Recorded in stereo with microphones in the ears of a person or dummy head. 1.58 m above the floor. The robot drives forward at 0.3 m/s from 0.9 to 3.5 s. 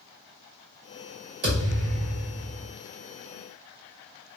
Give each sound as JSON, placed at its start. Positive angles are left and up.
{"t": 1.4, "sound": "a thud", "side_deg": -45, "distance_m": 1.8}